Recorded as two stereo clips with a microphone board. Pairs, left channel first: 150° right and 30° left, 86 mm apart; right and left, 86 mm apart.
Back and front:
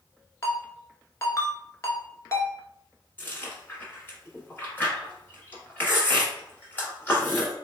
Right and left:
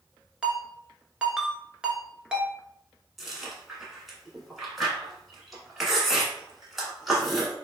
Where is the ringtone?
165° left, 0.7 m.